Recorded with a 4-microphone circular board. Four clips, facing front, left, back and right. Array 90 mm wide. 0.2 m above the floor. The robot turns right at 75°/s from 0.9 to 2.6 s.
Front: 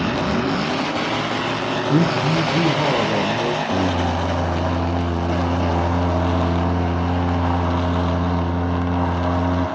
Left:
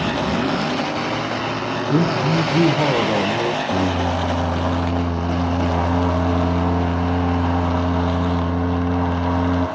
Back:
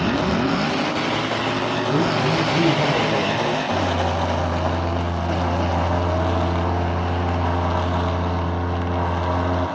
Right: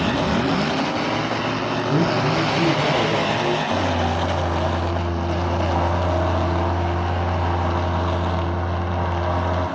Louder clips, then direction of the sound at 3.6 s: Left 1 dB, front 1 dB; 50° left.